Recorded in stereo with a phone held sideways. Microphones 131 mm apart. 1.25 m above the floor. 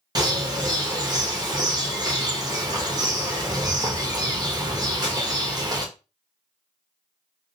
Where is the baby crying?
No baby crying in this recording.